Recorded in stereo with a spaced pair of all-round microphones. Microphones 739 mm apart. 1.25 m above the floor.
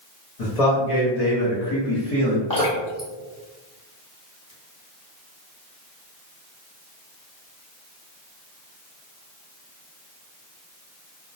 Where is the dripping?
25° left (ahead or behind), 0.9 m.